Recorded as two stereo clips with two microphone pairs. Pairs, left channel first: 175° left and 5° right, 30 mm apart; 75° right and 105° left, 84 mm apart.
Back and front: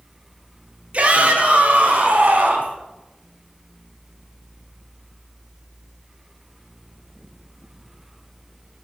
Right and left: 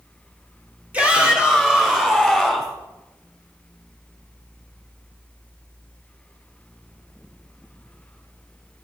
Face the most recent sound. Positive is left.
turn(degrees=20)